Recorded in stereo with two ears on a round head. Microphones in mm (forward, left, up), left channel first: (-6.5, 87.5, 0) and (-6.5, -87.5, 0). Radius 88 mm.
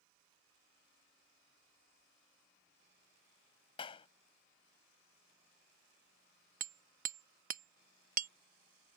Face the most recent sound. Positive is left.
turn(degrees=-45)  # may be behind; listen again after turning